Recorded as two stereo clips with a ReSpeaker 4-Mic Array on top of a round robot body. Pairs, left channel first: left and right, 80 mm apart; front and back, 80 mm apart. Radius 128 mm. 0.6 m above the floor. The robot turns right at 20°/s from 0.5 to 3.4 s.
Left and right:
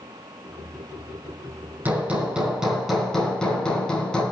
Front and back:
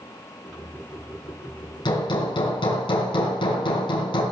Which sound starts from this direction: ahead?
Hammering, at 1.9 s.